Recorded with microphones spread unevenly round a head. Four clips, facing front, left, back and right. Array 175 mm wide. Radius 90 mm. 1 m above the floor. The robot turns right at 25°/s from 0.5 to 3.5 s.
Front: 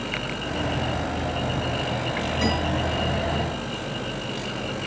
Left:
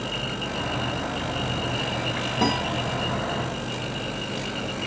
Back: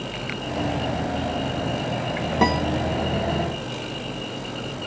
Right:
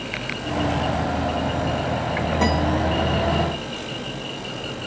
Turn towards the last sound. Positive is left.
turn(degrees=-150)